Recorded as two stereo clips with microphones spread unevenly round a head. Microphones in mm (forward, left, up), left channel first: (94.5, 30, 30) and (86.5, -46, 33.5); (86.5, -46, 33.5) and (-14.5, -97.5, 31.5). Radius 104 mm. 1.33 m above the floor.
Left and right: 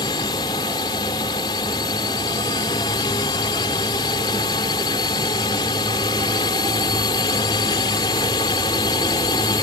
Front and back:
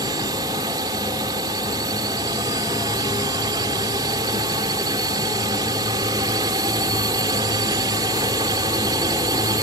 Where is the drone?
140° left.